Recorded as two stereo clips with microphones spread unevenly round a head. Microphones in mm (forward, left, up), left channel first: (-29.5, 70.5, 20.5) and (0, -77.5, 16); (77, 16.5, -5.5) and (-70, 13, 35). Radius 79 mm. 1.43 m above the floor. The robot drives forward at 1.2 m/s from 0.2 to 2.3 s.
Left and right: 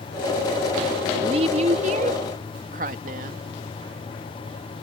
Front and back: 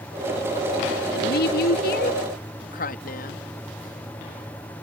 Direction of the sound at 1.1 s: 20° right.